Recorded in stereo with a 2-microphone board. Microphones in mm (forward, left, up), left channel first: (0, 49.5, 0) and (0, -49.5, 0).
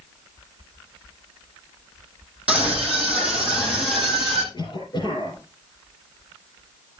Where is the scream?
10° right (ahead or behind), 6 m.